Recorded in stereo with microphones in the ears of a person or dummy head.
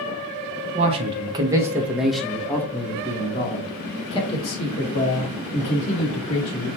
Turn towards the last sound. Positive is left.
turn(degrees=45)  # may be behind; listen again after turning